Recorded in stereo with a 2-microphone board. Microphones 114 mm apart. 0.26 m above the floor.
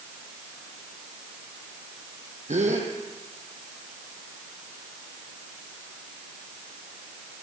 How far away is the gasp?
About 4 m.